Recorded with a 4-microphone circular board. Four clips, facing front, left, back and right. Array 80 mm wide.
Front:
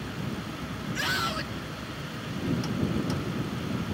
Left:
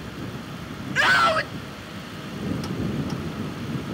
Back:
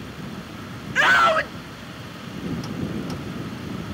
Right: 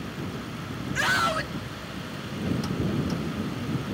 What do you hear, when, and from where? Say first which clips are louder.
0.9 s a scream: left 6 dB, back 15 dB; 160° left